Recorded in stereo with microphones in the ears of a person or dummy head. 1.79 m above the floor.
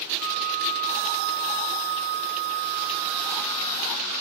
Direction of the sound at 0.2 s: 5° right (ahead or behind).